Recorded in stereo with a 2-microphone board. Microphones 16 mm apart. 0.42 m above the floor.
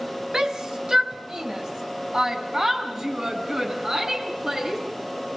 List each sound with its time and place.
0.3 s a shout: 35° right (ahead or behind), 2 m